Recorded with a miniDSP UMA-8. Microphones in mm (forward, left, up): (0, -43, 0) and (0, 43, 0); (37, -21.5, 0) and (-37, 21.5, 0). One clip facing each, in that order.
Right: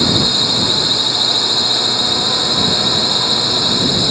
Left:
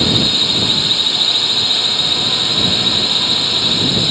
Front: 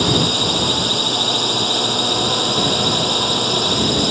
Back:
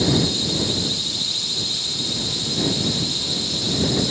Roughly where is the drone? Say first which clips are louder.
Right 1 dB, front 2 dB; ahead.